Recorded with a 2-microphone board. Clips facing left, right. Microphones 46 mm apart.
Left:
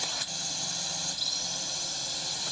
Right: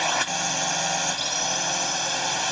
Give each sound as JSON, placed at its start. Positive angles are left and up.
{"t": 0.0, "sound": "a drone", "side_deg": -70}